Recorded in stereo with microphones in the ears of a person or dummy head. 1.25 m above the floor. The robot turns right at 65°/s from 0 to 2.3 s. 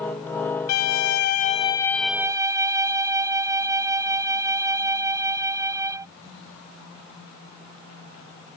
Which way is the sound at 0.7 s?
90° left.